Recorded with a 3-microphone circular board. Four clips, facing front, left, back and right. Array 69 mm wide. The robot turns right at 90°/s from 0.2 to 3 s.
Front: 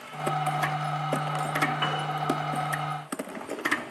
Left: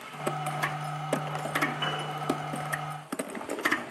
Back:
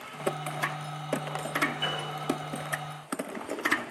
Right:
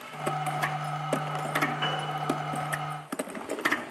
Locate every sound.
1.8 s a piano: 10° right, 2.5 m; by 2.0 s 10° left, 2.5 m